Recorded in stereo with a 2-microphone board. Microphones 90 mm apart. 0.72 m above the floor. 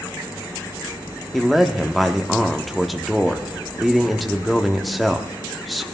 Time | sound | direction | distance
1.3 | a man speaking | centre (ahead or behind) | 1.1 m